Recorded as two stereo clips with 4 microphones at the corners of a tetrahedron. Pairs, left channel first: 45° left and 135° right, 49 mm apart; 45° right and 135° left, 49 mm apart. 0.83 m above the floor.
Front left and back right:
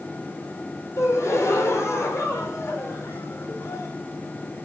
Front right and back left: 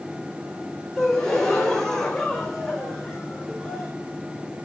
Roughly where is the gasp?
Ahead left.